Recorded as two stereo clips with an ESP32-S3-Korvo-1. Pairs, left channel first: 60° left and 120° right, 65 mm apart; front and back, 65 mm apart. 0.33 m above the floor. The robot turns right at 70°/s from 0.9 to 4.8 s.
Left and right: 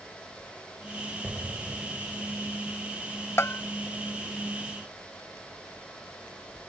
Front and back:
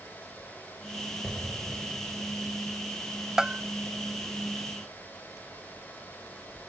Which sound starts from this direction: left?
A bell, at 3.4 s.